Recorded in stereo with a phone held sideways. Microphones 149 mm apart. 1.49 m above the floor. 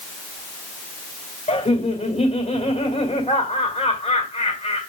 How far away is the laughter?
About 2 m.